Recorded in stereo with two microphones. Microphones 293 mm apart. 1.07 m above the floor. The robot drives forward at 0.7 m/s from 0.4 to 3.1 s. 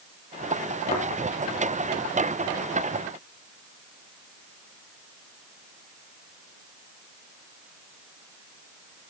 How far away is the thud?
About 2.5 m.